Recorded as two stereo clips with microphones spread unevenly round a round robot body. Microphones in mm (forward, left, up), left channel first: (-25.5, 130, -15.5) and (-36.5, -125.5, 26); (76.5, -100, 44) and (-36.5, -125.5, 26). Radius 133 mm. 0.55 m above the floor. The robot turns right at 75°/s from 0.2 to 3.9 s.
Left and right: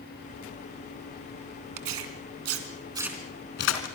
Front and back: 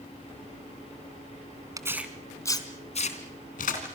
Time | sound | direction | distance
1.8 | tearing paper | 105° right | 3.5 m